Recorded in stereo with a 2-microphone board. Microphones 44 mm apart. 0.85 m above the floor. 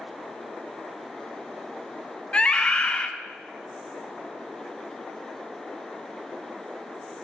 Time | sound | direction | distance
2.3 | a scream | 20° left (ahead or behind) | 0.5 m